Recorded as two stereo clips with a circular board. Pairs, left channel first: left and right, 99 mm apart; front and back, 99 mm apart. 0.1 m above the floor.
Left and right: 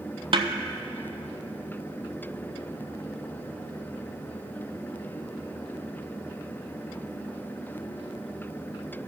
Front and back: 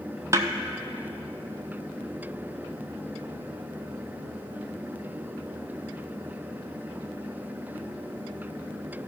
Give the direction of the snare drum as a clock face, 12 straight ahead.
4 o'clock.